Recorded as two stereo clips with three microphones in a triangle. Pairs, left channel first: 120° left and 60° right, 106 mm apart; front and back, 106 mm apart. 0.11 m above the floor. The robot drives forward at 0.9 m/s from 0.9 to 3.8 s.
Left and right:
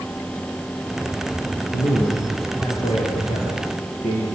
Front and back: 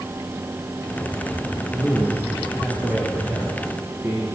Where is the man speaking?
95° left, 7 m; by 4.3 s 110° left, 7 m.